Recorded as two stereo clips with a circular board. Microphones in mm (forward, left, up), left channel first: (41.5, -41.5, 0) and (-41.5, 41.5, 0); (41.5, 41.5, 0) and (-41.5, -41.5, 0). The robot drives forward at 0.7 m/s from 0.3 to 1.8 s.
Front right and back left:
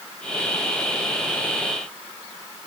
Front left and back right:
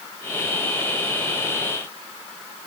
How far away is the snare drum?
No snare drum in this recording.